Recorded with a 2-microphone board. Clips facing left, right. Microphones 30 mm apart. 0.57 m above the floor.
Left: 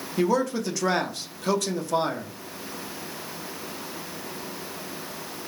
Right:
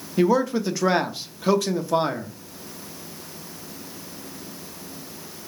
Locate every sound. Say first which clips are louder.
0.2 s a man speaking: right 4 dB; 15° right (ahead or behind), 0.6 m